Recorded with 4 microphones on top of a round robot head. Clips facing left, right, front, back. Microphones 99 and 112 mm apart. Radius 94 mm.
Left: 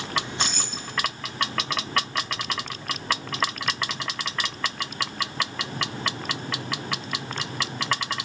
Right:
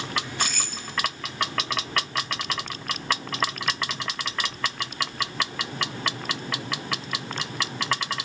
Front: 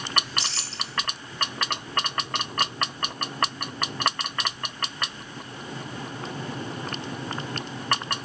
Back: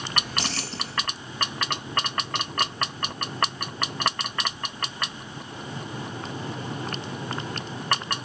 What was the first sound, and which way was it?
Keys jangling, 155° left.